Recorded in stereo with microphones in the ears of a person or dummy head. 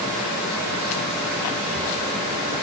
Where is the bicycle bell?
I don't hear a bicycle bell.